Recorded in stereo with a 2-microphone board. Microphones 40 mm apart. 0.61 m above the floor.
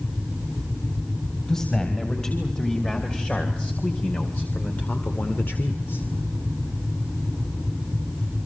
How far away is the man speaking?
About 4 m.